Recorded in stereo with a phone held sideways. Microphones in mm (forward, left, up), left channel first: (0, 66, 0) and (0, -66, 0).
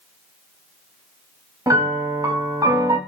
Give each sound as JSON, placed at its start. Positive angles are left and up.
{"t": 1.7, "sound": "a piano", "side_deg": -25, "distance_m": 0.6}